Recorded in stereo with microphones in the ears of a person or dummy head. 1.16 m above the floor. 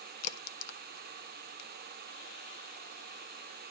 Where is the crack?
90° left, 1.1 m.